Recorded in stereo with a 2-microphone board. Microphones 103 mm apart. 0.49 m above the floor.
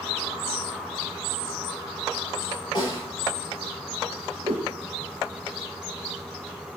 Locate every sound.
2.8 s a snare drum: 40° left (ahead or behind), 5.5 m
4.4 s a whoosh: 80° right, 2.5 m